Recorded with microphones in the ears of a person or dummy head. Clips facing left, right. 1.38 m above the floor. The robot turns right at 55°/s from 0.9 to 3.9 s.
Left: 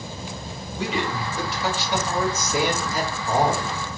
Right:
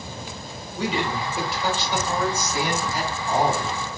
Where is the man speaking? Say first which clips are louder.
Right 1 dB; 40° right, 1.4 m; by 3.8 s 120° left, 1.4 m.